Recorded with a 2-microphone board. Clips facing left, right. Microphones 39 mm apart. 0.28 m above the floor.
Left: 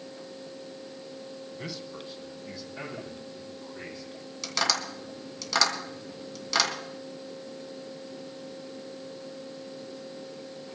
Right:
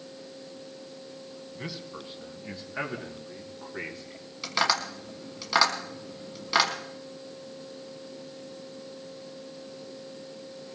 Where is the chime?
I don't hear a chime.